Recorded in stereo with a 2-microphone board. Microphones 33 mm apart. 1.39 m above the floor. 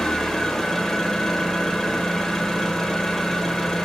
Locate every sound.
0.0 s an engine running: 15° left (ahead or behind), 0.9 m